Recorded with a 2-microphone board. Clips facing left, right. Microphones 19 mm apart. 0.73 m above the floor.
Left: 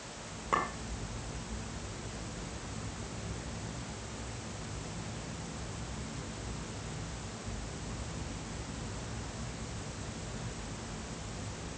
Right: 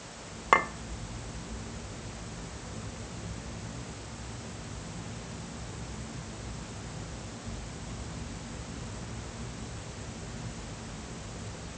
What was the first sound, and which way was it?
A clink, 50° right (ahead or behind).